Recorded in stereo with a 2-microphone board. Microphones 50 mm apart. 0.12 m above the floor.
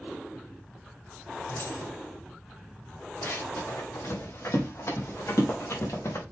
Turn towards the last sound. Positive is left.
turn(degrees=80)